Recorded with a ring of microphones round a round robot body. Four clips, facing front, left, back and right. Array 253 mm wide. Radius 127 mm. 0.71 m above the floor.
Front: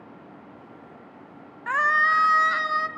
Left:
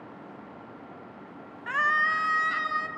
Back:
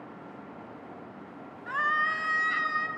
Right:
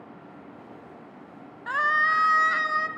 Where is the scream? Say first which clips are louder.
Right 2 dB, front 7 dB; 15° right, 1.0 m; by 2.9 s 35° right, 2.5 m.